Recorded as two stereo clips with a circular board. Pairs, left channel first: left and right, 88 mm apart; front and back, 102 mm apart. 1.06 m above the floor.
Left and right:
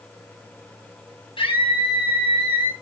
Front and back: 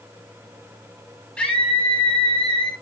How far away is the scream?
About 7.5 m.